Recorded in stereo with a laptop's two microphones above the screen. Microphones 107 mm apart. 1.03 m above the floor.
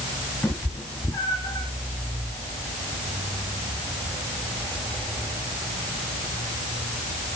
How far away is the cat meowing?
About 2 m.